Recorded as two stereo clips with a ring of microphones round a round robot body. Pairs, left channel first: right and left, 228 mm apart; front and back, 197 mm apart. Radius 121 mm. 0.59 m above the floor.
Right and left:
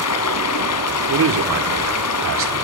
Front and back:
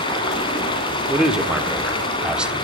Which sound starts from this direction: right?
Running water, at 0.0 s.